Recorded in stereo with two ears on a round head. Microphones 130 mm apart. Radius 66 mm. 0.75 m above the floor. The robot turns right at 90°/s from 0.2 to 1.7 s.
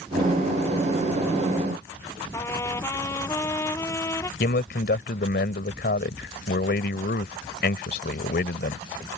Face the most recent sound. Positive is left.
turn(degrees=70)  # may be behind; listen again after turning